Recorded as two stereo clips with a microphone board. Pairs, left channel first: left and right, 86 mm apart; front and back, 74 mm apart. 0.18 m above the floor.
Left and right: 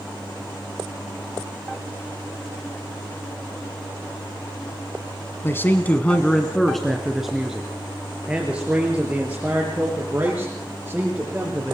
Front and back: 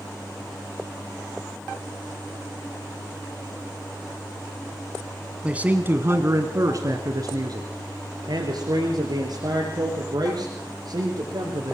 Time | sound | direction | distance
5.4 | a man speaking | 120° left | 1.4 m